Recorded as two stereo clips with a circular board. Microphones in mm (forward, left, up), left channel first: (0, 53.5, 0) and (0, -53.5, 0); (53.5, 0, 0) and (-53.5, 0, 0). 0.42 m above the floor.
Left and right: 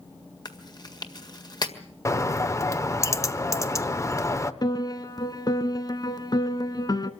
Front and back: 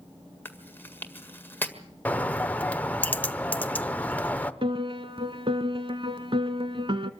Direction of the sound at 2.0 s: 60° left.